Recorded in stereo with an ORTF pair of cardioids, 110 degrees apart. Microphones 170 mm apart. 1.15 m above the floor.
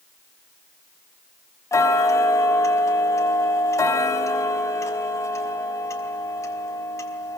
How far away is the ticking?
About 4 m.